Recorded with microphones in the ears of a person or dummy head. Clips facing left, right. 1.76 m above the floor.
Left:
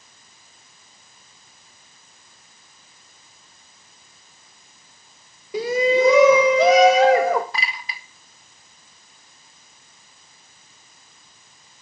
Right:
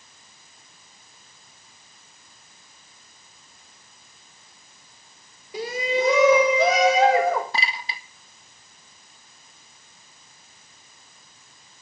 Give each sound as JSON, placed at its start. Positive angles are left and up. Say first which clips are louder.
{"t": 5.5, "sound": "a shout", "louder": "left 7 dB", "side_deg": 65, "distance_m": 1.4}
{"t": 7.5, "sound": "a clink", "louder": "right 1 dB", "side_deg": -25, "distance_m": 1.8}